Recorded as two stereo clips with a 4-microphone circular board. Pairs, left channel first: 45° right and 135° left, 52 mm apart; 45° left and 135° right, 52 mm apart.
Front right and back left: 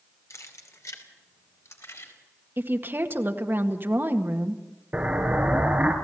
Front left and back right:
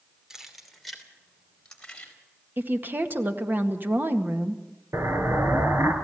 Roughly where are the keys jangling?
Ahead right.